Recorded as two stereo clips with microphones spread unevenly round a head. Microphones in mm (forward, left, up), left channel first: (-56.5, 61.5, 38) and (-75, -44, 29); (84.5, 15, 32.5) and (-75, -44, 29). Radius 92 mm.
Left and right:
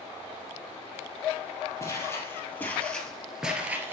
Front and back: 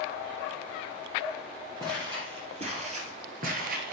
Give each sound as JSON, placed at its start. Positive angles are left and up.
{"t": 1.8, "sound": "footsteps", "azimuth_deg": 135, "distance_m": 2.5}